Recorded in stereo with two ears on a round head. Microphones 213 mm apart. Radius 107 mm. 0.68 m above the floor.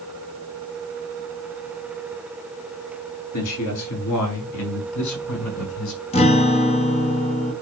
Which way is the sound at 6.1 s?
25° left (ahead or behind).